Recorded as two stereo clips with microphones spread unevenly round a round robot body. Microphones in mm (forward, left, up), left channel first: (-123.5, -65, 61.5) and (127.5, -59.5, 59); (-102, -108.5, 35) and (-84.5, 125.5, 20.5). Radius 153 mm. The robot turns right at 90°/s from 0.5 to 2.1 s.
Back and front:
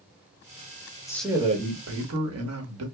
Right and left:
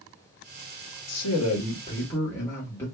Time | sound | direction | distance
1.1 | a man speaking | 100° right | 1.3 m